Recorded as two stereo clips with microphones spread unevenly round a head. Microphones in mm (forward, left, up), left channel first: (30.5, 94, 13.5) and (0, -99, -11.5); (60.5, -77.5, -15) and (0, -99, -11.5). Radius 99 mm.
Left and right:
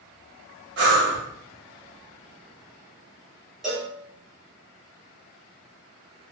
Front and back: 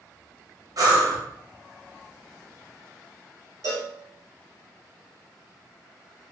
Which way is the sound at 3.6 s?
165° left.